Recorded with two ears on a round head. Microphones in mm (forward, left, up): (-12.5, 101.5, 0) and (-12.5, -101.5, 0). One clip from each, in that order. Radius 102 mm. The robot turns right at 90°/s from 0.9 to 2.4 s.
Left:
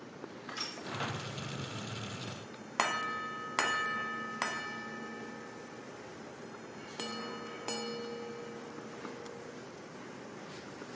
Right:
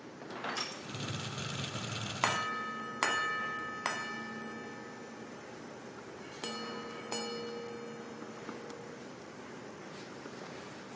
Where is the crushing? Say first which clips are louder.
Right 1 dB; 25° right (ahead or behind), 5 m.